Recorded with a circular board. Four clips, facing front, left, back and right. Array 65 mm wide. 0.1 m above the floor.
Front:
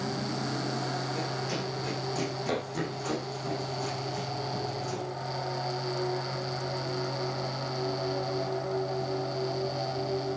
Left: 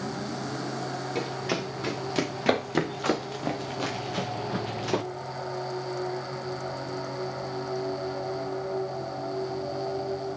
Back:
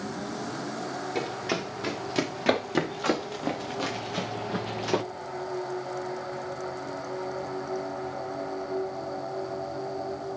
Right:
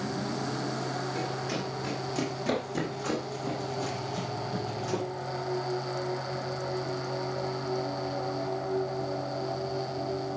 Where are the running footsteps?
135° left, 2.5 m; by 5.0 s 145° left, 0.6 m.